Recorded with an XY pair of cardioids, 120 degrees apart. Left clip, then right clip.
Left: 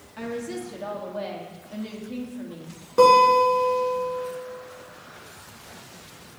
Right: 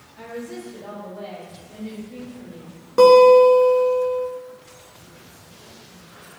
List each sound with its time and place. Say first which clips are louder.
0.2 s a woman speaking: left 2 dB; 70° left, 1.5 m
3.0 s a guitar: right 5 dB; 15° right, 1.5 m